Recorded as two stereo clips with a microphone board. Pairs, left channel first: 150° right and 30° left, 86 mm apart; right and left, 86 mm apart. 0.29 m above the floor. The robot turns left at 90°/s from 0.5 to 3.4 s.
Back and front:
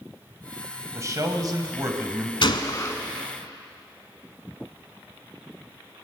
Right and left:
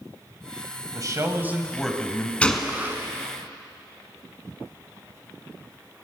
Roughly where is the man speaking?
Left.